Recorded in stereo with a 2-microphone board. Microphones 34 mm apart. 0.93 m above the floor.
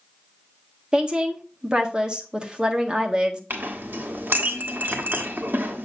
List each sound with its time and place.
0.9 s a woman speaking: 25° right (ahead or behind), 1.3 m
3.5 s a clink: 75° right (ahead or behind), 1.2 m